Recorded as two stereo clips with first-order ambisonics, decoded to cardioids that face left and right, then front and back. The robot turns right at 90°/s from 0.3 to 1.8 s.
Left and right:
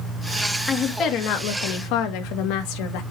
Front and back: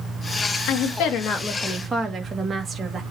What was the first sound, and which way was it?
A woman speaking, straight ahead.